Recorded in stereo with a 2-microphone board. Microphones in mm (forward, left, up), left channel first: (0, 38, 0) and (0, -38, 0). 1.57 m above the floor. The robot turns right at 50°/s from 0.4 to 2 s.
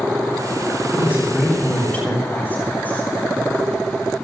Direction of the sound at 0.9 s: 30° right.